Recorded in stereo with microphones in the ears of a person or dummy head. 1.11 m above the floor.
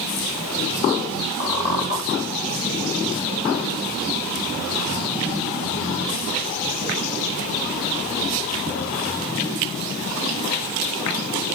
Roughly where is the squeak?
Left.